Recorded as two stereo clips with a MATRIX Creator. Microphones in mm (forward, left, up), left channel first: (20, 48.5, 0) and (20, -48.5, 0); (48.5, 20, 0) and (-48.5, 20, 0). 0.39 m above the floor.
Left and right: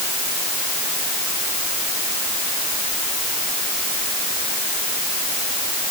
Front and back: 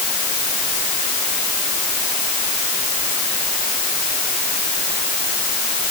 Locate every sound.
Only background noise.